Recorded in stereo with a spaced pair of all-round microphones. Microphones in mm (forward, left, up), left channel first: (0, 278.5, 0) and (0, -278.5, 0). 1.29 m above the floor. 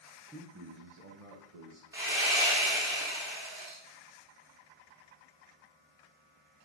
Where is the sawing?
5° right (ahead or behind), 2.5 m.